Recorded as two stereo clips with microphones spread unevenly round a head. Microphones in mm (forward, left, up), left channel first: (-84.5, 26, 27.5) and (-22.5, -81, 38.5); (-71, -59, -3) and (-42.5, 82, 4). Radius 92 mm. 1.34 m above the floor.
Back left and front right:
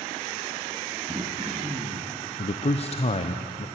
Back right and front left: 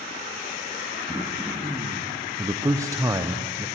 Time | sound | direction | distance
1.1 | throat clearing | 5° left | 1.5 m
2.4 | a man speaking | 150° left | 0.9 m